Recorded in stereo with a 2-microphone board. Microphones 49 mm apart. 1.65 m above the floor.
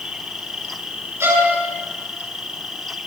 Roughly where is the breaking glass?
I don't hear breaking glass.